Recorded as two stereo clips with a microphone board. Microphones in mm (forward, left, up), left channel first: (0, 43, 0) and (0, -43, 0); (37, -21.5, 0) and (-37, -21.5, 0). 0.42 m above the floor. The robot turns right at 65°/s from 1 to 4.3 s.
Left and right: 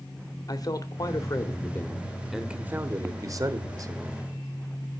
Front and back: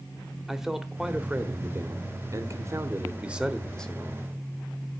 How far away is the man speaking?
About 1.1 m.